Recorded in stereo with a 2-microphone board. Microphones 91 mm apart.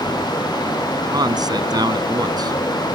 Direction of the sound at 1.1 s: 45° right (ahead or behind).